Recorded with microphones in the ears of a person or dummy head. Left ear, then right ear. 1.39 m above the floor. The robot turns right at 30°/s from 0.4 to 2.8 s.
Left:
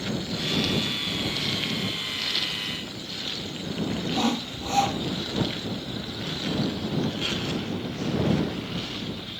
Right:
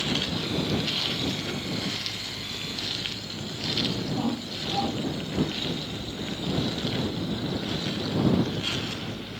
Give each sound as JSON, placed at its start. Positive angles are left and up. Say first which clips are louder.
{"t": 4.1, "sound": "sawing", "louder": "left 4 dB", "side_deg": 65}